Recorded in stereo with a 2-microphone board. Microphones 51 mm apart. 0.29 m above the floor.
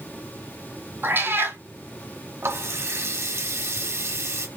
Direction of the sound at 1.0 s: 45° right (ahead or behind).